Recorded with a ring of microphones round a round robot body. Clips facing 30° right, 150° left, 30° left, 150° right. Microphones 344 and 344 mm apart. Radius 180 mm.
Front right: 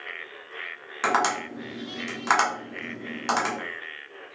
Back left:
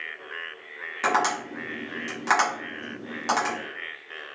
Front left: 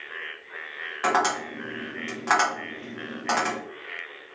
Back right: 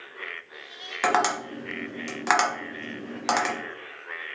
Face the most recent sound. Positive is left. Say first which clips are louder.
# even, even
turn(degrees=-115)